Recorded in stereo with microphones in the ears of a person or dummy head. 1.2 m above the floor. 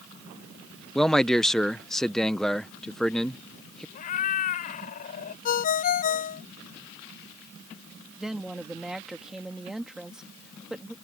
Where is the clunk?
No clunk in this recording.